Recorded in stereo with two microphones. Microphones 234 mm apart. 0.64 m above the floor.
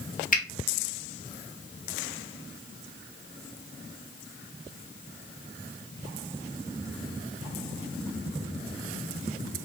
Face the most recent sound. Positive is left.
turn(degrees=35)  # may be behind; listen again after turning